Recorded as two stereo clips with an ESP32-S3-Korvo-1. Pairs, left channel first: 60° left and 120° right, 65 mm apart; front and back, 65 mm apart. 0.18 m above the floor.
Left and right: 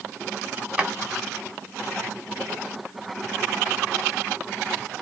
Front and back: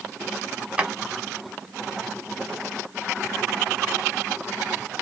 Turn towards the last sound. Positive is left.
turn(degrees=-160)